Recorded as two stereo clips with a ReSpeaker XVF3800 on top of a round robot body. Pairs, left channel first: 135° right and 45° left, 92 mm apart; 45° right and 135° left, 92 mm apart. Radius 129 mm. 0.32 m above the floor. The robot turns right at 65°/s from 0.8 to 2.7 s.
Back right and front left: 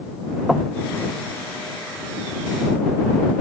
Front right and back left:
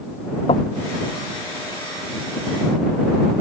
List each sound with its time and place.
0.5 s knocking: 40° right